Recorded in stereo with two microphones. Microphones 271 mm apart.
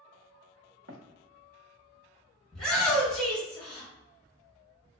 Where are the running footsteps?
55° right (ahead or behind), 1.0 m.